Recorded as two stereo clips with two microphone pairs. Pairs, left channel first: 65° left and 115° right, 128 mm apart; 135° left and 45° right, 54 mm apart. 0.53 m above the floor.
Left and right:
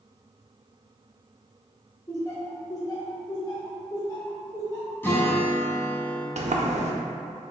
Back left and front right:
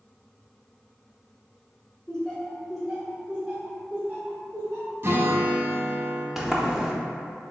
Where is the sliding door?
130° right, 0.5 m.